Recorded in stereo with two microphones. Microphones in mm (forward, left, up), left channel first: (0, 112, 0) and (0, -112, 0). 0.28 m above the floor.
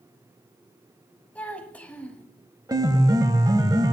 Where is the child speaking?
5° left (ahead or behind), 1.1 m.